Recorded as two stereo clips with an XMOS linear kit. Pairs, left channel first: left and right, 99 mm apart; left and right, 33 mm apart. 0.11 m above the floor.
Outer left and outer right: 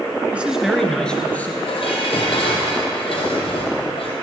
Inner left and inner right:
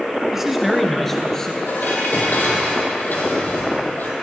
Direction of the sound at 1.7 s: 65° left (ahead or behind).